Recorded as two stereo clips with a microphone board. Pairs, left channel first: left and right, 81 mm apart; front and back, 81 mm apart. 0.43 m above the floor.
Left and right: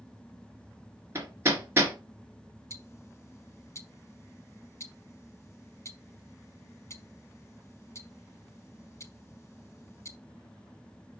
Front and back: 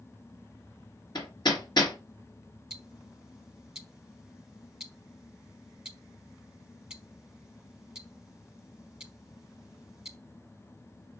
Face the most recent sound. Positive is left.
turn(degrees=100)